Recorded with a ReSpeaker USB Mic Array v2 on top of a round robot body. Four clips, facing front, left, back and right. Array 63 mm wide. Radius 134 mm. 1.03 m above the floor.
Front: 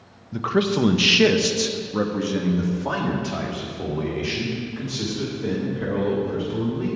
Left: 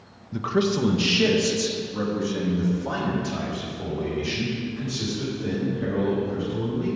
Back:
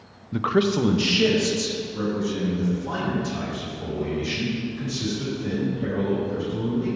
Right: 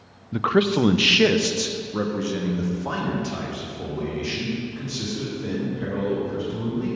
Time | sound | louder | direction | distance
0.3 | a man speaking | right 3 dB, even | 115° right | 0.6 m